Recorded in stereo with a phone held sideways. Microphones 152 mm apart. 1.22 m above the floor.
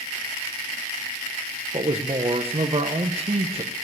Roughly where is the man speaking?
Right.